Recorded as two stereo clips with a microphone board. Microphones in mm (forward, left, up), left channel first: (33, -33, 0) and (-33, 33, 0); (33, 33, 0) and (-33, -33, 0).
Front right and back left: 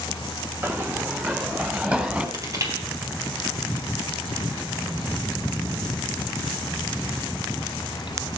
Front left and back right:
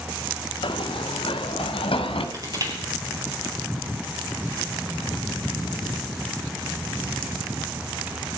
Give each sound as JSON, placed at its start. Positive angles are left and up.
{"t": 0.6, "sound": "running footsteps", "azimuth_deg": 70, "distance_m": 1.4}
{"t": 2.3, "sound": "crushing", "azimuth_deg": -175, "distance_m": 3.5}